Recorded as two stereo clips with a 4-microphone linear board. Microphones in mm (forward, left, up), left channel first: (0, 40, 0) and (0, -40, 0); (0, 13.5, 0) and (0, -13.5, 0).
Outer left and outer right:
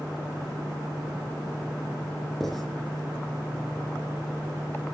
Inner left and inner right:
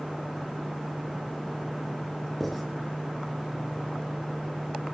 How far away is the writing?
About 5 m.